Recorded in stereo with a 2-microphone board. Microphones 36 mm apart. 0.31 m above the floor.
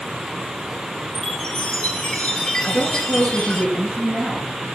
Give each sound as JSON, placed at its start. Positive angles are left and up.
{"t": 1.1, "sound": "a chime", "side_deg": 25, "distance_m": 1.3}
{"t": 2.6, "sound": "a woman speaking", "side_deg": 25, "distance_m": 3.5}